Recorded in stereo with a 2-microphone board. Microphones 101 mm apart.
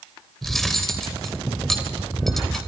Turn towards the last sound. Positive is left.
turn(degrees=5)  # may be behind; listen again after turning